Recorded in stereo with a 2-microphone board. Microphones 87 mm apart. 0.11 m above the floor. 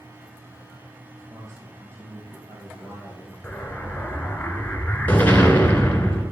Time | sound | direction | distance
1.3 | a man speaking | 35° right (ahead or behind) | 3 m
3.4 | an explosion | 20° left (ahead or behind) | 1.5 m